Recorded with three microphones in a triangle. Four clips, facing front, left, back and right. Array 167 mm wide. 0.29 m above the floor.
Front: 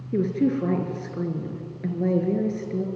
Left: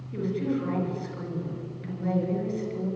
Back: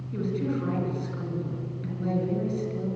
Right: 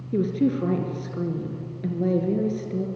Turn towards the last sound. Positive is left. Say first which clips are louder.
# right 6 dB, front 6 dB
turn(degrees=-45)